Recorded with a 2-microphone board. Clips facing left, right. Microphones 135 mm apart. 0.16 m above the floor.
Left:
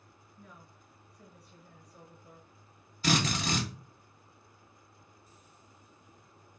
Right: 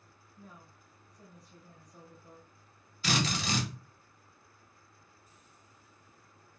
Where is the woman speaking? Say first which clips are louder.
Right 1 dB; 30° right (ahead or behind), 2.5 m.